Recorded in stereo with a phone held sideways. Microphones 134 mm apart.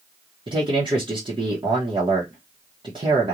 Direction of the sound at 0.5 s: 40° right (ahead or behind).